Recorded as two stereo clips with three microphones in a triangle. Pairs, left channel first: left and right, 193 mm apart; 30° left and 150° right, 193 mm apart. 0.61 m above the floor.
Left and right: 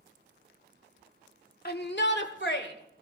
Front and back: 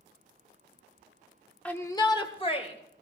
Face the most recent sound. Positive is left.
turn(degrees=80)